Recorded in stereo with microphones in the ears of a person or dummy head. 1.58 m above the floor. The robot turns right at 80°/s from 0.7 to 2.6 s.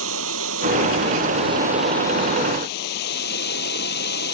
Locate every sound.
0.0 s running water: 95° right; by 4.3 s 60° left